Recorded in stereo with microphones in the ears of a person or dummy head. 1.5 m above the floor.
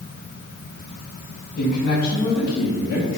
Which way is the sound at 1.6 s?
50° left (ahead or behind).